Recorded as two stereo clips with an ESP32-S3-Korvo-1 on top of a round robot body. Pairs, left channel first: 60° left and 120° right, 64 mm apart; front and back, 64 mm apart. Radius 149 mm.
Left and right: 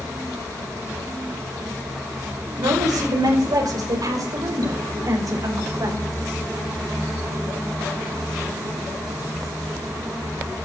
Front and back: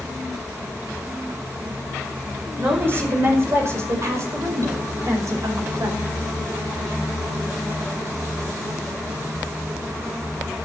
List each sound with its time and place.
2.6 s a woman speaking: 125° right, 5 m; by 6.0 s 150° right, 6 m